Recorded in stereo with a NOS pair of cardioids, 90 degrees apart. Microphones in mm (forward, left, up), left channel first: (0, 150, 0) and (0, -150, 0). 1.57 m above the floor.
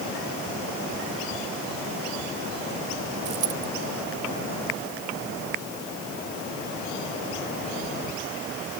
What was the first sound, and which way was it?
A dropped coin, 70° right.